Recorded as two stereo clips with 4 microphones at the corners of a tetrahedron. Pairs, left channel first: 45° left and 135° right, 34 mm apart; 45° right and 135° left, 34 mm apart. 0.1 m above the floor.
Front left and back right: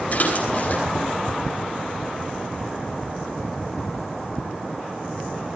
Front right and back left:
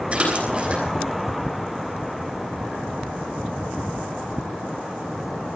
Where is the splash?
85° left, 6.5 m.